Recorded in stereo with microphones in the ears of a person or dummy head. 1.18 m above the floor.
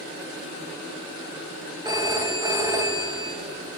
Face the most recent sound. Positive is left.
turn(degrees=-15)  # may be behind; listen again after turning